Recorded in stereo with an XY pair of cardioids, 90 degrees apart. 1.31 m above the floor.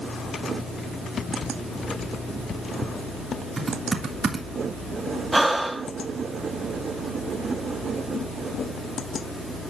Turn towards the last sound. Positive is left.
turn(degrees=-15)